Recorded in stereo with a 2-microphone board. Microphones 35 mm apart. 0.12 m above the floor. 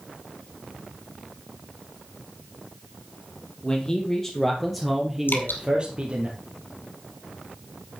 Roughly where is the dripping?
Left.